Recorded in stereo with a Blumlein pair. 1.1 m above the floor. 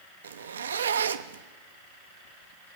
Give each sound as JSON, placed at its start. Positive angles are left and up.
{"t": 0.2, "sound": "a zipper", "azimuth_deg": -70, "distance_m": 0.6}